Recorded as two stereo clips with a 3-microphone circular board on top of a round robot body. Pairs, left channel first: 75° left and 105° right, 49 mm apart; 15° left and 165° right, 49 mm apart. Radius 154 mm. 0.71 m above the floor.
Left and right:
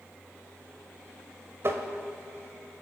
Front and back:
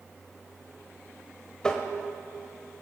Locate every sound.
1.6 s tapping: 60° right, 1.7 m